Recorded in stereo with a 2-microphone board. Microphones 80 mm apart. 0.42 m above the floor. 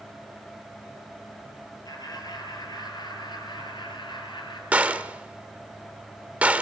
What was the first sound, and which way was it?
Laughter, 50° left (ahead or behind).